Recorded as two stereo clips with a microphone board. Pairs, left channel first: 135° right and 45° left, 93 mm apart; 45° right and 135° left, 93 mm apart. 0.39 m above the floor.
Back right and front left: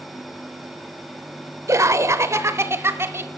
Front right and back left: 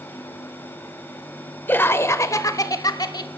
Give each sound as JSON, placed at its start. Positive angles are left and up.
{"t": 1.7, "sound": "laughter", "azimuth_deg": 15, "distance_m": 1.0}